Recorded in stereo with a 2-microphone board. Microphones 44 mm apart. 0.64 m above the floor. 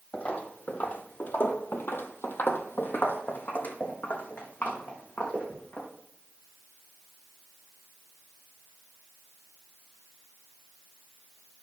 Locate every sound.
0.1 s footsteps: 30° left (ahead or behind), 1.4 m